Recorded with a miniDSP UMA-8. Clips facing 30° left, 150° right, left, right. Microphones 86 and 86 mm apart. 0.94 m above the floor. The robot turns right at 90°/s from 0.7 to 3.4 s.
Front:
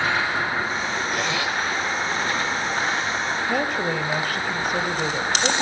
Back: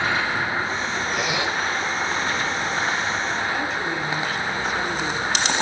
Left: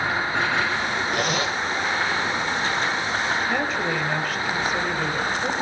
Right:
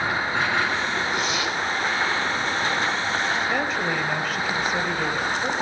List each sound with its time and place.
1.1 s a zipper: 115° left, 4.5 m; by 1.6 s 155° left, 4.5 m
3.5 s a woman speaking: straight ahead, 4.5 m